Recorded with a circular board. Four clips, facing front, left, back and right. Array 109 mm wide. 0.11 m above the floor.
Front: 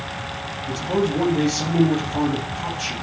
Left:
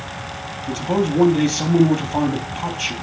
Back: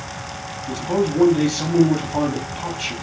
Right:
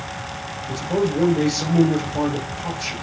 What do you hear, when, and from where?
0.7 s a man speaking: 100° left, 3.5 m